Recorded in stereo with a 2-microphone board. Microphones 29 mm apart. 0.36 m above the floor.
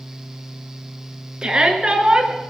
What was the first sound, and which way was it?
A shout, 25° right (ahead or behind).